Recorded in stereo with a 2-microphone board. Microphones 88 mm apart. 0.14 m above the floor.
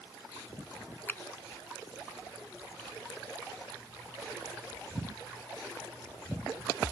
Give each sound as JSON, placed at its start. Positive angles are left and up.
{"t": 1.1, "sound": "a finger snap", "side_deg": 25}